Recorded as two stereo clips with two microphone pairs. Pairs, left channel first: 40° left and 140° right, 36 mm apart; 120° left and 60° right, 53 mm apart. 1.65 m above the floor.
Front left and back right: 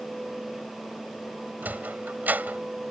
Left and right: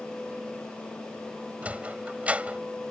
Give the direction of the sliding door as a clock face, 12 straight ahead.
4 o'clock.